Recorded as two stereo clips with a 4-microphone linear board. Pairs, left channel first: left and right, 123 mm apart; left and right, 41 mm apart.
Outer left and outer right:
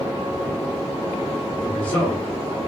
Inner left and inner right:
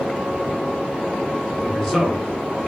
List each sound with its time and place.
1.6 s a man speaking: 10° left (ahead or behind), 1.3 m